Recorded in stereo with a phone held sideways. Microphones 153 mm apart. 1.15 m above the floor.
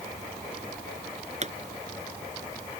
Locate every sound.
1.4 s a pop: 50° right (ahead or behind)